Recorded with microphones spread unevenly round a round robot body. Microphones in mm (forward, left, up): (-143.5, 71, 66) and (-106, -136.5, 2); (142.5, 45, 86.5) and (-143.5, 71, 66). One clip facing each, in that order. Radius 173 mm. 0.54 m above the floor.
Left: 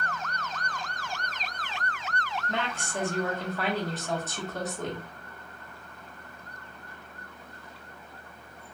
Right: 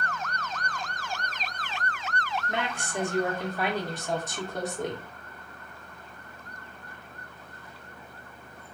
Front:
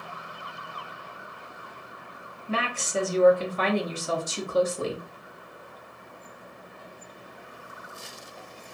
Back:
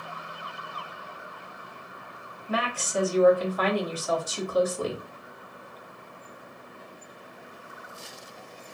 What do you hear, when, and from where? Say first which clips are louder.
2.5 s a woman speaking: left 1 dB, even; 50° right, 0.8 m